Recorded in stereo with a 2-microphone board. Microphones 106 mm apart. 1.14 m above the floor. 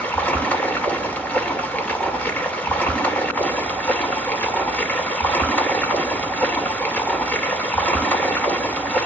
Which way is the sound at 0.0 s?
15° left (ahead or behind).